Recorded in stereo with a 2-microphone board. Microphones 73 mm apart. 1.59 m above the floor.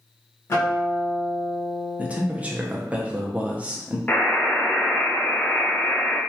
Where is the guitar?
35° left (ahead or behind), 1.2 m.